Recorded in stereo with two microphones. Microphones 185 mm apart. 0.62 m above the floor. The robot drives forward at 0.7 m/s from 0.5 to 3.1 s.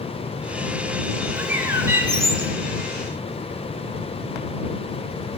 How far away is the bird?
About 0.7 m.